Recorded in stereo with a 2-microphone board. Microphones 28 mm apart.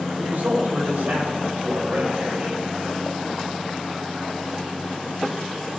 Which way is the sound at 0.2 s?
80° right.